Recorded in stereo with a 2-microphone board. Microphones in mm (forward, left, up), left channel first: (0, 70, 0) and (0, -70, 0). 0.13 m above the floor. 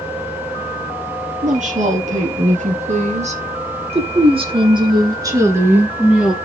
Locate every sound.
1.4 s a woman speaking: 60° right (ahead or behind), 4 m; by 6.3 s 5° right (ahead or behind), 2 m